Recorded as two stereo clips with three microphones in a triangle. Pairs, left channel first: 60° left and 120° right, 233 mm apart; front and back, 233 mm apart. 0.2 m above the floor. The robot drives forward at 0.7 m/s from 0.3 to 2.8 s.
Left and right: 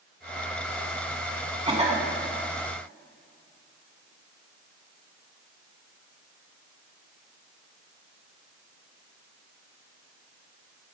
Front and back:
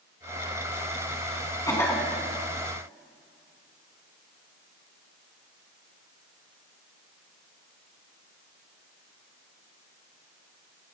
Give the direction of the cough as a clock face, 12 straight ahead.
2 o'clock.